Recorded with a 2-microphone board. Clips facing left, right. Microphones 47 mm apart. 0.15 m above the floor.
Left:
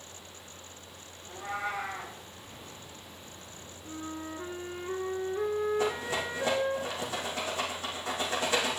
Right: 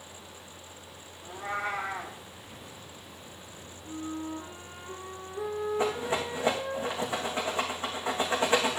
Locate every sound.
1.2 s a cat meowing: 30° right (ahead or behind), 4 m
3.9 s a flute: 40° left (ahead or behind), 1.9 m
5.8 s a rattle: 30° right (ahead or behind), 3 m